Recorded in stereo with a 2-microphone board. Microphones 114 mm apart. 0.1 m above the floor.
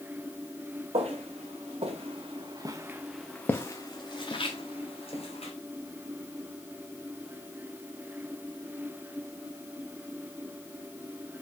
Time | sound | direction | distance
0.9 | footsteps | 75° right (ahead or behind) | 1.3 m